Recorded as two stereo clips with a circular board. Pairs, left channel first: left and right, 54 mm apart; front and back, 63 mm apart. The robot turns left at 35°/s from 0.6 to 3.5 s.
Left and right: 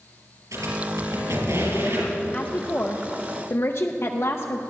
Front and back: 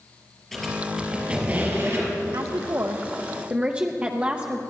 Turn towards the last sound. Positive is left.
turn(degrees=115)